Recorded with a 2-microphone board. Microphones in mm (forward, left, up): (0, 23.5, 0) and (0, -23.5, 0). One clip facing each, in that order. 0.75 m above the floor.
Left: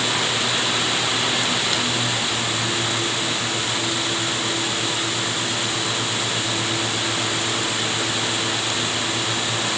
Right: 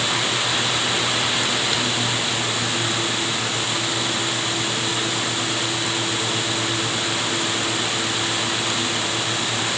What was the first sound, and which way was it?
Only background noise.